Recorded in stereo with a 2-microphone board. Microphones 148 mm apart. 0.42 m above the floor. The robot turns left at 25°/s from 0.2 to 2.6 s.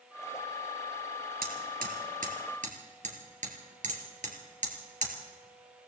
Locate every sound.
1.4 s hammering: 85° right, 2.5 m; by 5.1 s 60° right (ahead or behind), 2.5 m